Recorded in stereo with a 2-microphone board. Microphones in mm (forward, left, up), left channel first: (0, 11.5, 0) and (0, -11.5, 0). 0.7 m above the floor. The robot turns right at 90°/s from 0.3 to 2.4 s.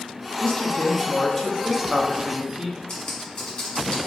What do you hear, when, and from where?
0.4 s a woman speaking: 85° left, 0.6 m; by 2.8 s 95° right, 0.6 m
2.9 s typing on a keyboard: 45° left (ahead or behind), 1.2 m